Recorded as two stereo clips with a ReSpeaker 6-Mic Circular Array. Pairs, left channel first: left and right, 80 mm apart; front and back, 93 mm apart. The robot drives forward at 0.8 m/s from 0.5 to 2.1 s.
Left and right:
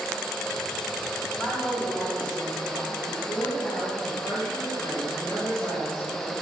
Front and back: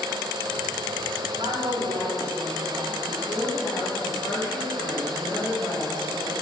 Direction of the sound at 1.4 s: Straight behind.